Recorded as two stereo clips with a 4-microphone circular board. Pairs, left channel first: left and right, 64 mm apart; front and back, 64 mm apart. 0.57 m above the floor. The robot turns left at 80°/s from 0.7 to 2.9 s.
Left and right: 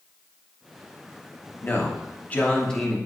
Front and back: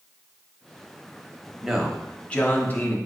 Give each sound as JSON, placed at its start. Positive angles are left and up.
{"t": 1.6, "sound": "a man speaking", "azimuth_deg": 105, "distance_m": 0.7}